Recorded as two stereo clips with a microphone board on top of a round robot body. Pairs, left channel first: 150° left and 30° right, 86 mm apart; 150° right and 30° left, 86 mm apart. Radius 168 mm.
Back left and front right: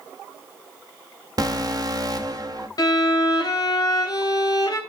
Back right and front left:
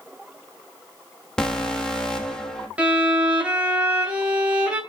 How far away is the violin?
About 2.5 m.